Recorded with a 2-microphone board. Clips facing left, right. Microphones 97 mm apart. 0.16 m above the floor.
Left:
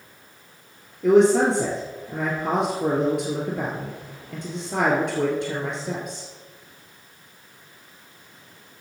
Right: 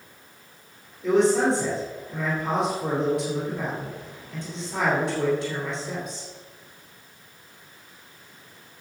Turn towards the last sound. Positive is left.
turn(degrees=60)  # may be behind; listen again after turning